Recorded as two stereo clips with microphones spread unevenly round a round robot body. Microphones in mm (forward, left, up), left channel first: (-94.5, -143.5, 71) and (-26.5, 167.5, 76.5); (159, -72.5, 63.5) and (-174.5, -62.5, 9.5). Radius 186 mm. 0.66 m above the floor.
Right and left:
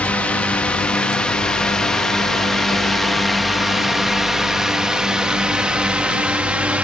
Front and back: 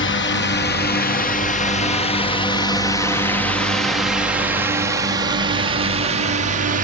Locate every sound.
0.0 s a drone: 25° right; by 6.8 s 160° left